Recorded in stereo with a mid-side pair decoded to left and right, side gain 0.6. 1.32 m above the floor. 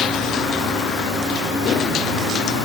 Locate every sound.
Only background noise.